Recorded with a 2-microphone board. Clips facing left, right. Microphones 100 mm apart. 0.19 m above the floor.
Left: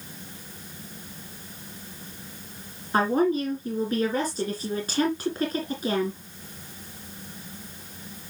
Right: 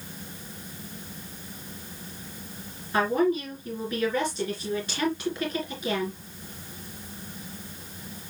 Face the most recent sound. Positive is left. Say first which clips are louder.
# left 1 dB
turn(degrees=40)  # may be behind; listen again after turning